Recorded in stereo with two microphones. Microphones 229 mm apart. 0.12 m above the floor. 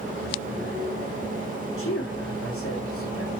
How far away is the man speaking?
About 7 m.